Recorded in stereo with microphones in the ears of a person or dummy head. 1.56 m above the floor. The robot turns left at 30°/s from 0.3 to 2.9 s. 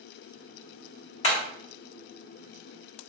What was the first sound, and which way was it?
Hammering, 30° left (ahead or behind).